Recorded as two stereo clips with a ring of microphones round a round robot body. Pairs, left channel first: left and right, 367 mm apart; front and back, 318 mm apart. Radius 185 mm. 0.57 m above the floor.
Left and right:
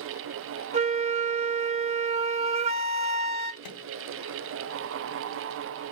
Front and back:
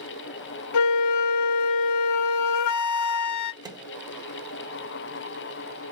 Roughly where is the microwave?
Left.